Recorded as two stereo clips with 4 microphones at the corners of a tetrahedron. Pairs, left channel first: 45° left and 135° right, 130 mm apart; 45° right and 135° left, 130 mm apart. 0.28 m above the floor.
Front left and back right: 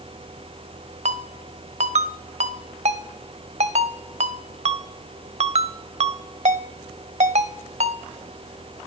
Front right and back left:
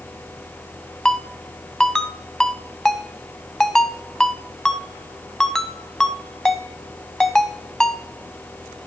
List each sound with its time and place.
1.1 s a ringtone: 130° right, 0.5 m